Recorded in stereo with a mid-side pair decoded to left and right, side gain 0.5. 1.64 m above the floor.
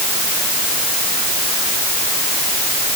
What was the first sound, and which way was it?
Only background noise.